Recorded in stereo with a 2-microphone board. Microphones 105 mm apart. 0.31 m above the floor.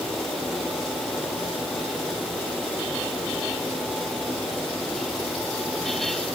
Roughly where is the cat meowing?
I don't hear a cat meowing.